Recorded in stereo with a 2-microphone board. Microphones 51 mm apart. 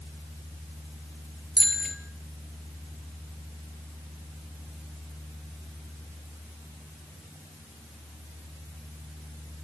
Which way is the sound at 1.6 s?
5° right (ahead or behind).